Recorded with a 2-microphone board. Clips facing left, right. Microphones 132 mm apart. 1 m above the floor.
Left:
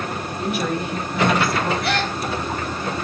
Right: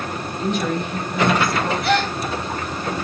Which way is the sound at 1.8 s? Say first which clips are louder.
Right 3 dB; centre (ahead or behind).